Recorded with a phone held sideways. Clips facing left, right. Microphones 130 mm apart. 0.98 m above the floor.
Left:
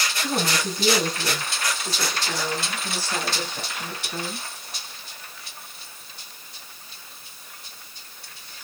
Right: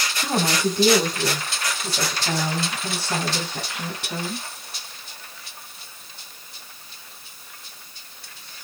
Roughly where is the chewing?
I don't hear chewing.